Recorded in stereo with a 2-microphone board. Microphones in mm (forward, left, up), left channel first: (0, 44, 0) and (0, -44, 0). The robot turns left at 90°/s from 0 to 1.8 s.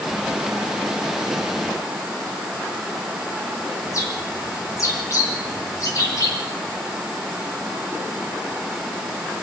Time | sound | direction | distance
3.9 | a bird | 40° left (ahead or behind) | 3 m